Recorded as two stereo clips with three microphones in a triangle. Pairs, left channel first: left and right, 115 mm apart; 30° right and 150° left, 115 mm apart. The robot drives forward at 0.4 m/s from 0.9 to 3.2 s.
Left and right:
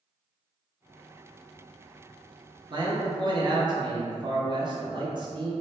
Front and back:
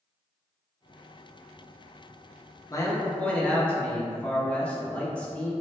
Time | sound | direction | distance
2.7 | a man speaking | 75° right | 0.6 m